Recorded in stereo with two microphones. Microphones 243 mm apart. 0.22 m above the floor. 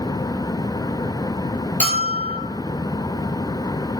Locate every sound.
1.8 s a bell: 30° right (ahead or behind), 0.9 m